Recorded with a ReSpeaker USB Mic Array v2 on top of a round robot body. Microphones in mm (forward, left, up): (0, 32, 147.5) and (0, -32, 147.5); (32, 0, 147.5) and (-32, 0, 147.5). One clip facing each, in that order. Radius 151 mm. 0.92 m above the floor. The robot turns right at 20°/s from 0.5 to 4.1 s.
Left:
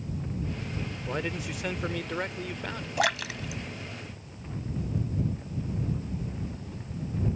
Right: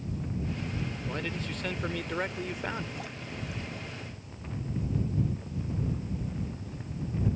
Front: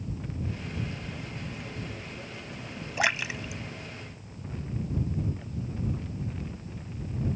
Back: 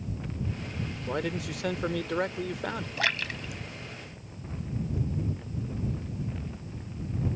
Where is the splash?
70° left; by 5.0 s 95° left.